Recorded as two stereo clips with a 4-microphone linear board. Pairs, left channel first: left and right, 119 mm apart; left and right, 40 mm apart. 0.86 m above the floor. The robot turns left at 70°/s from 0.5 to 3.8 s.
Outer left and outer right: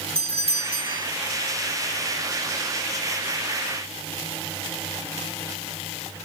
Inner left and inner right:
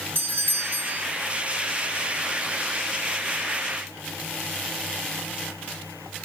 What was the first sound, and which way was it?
A doorbell, 95° right.